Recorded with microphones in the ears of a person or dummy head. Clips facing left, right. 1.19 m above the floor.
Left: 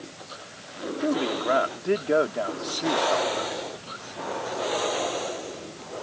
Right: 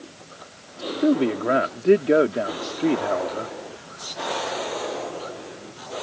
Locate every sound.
1.0 s a man speaking: 30° right (ahead or behind)